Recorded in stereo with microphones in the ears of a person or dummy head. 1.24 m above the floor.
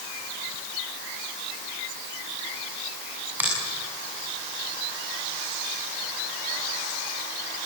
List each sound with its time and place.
3.4 s a finger snap: 5° right (ahead or behind), 7 m